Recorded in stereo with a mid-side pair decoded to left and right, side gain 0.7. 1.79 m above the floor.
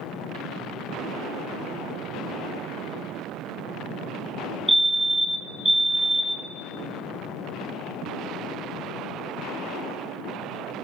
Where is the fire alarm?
5° right, 1.3 m.